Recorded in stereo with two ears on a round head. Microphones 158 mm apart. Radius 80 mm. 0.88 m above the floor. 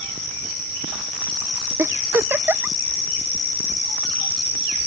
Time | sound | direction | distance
1.8 | a giggle | 10° right (ahead or behind) | ?